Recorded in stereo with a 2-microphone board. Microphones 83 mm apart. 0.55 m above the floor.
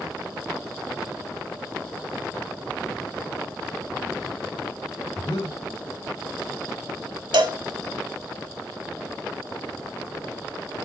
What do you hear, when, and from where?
5.2 s breathing: 60° left (ahead or behind), 3 m
7.3 s a cowbell: 85° right, 1.6 m